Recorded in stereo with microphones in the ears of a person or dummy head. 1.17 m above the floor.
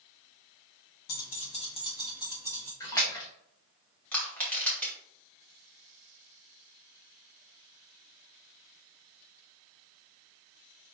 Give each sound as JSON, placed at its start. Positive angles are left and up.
{"t": 1.1, "sound": "keys jangling", "side_deg": 55, "distance_m": 0.6}
{"t": 2.8, "sound": "a splash", "side_deg": 20, "distance_m": 0.8}
{"t": 4.1, "sound": "crushing", "side_deg": 10, "distance_m": 1.1}